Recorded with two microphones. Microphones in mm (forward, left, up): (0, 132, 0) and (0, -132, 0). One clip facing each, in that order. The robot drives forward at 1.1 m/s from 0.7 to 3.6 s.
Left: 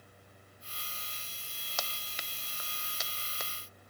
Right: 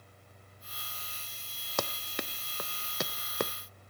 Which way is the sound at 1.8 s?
65° right (ahead or behind).